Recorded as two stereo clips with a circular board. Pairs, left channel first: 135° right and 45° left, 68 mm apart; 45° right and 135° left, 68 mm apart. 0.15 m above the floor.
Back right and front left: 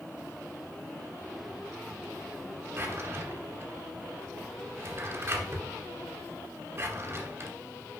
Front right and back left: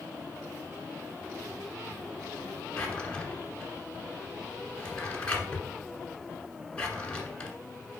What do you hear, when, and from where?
2.8 s a drawer: 25° left, 1.2 m